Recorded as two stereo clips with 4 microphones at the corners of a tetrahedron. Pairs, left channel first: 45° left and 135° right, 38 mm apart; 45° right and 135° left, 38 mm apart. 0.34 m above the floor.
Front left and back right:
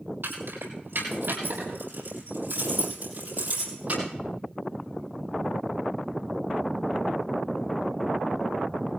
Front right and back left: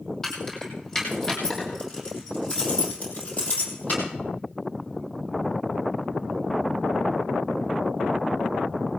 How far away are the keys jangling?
About 8.5 m.